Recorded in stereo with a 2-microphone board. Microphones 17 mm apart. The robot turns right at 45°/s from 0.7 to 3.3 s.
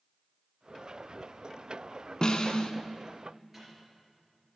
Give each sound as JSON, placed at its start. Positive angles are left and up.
{"t": 2.2, "sound": "a snare drum", "side_deg": 50, "distance_m": 0.5}
{"t": 3.5, "sound": "a microwave", "side_deg": -20, "distance_m": 4.0}